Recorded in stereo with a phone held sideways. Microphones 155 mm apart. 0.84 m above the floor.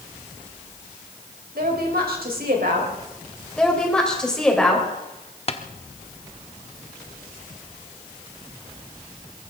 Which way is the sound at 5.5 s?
40° left (ahead or behind).